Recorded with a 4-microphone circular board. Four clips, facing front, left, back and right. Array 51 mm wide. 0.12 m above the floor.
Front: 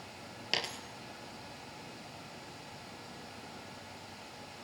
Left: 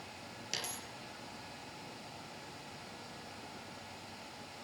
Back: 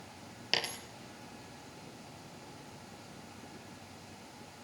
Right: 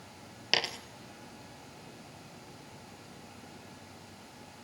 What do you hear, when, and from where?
0.5 s a dropped coin: 95° right, 0.6 m